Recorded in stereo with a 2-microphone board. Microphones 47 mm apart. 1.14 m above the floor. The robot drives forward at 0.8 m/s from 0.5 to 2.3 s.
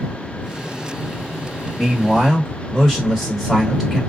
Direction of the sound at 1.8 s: Centre (ahead or behind).